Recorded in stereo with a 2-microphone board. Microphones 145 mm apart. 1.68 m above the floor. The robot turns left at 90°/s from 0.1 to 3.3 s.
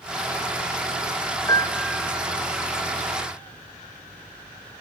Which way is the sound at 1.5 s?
30° left.